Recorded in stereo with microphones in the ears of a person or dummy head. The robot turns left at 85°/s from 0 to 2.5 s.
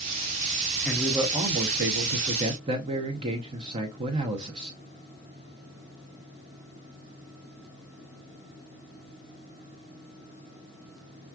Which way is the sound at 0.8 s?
5° left.